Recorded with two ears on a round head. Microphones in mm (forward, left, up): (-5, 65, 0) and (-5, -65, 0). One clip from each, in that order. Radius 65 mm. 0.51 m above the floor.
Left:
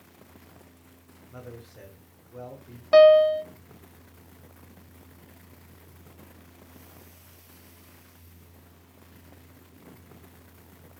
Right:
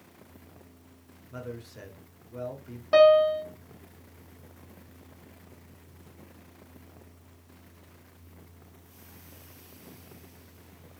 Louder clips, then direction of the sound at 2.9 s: Left 3 dB; 25° left (ahead or behind).